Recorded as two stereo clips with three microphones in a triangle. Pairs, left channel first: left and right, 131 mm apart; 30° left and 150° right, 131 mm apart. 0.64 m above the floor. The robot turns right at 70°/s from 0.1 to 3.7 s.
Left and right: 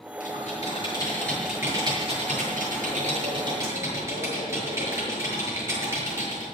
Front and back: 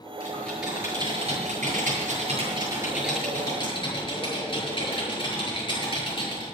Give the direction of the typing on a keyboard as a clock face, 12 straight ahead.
9 o'clock.